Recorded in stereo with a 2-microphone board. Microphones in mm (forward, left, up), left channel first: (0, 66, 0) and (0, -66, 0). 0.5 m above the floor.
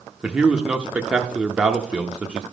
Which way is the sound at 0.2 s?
10° right (ahead or behind).